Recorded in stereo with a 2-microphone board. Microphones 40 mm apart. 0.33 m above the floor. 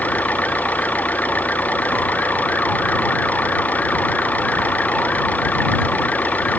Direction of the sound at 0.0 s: 45° left (ahead or behind).